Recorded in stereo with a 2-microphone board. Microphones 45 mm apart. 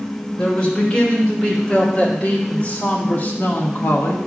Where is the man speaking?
15° left (ahead or behind), 3.5 m; by 4.3 s 60° left (ahead or behind), 1.6 m.